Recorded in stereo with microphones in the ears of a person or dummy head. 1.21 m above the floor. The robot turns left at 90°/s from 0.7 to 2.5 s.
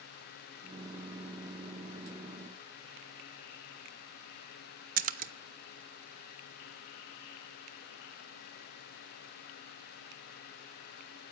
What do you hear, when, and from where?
5.0 s a splash: 40° right (ahead or behind), 0.6 m